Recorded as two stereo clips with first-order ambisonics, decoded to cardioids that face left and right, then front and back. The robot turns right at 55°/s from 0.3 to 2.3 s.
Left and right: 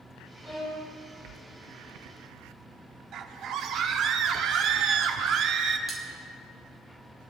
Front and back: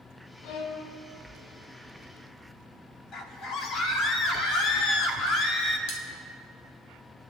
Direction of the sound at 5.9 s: 5° right.